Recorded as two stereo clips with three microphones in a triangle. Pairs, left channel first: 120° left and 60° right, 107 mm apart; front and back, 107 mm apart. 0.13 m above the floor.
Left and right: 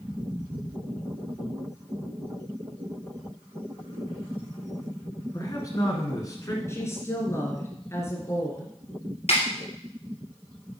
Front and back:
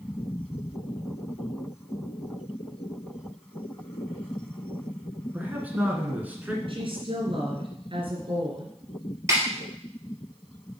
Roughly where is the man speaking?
Behind left.